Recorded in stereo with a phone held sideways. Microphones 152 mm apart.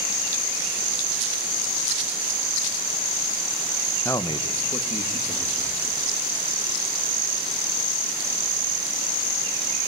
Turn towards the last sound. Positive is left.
turn(degrees=50)  # may be behind; listen again after turning